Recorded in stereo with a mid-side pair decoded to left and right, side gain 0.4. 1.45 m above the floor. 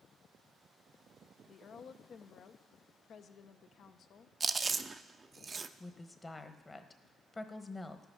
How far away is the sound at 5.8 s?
About 1.2 m.